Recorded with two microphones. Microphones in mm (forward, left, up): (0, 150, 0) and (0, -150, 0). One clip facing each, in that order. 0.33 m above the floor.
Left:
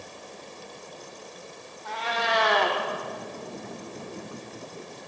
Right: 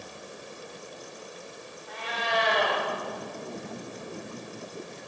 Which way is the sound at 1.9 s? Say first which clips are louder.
Left 4 dB; 80° left.